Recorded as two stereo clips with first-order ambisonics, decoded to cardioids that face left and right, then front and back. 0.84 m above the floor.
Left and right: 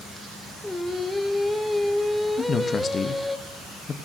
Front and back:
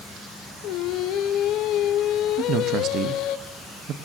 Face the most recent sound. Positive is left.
turn(degrees=150)